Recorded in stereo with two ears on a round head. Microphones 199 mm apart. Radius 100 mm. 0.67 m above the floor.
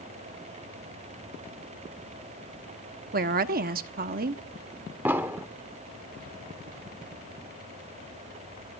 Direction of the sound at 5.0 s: 10° right (ahead or behind).